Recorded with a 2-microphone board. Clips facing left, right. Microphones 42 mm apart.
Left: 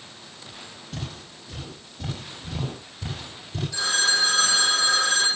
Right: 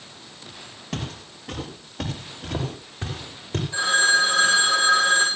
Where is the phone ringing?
35° right (ahead or behind), 9.5 m.